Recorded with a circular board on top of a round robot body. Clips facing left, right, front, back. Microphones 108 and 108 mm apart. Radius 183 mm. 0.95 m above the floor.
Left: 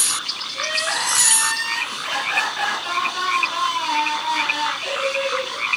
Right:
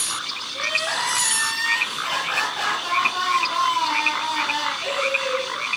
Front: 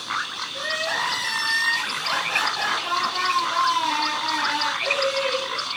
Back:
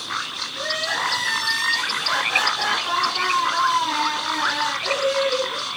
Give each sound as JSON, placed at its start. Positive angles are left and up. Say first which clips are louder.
{"t": 0.5, "sound": "crying", "louder": "left 1 dB, back 1 dB", "azimuth_deg": -30, "distance_m": 9.0}